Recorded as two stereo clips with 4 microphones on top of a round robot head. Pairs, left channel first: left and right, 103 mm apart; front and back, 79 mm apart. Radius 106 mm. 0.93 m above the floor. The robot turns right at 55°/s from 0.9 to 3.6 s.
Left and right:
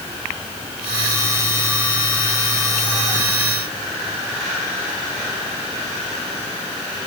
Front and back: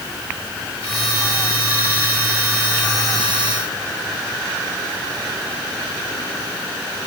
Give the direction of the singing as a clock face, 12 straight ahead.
I don't hear singing.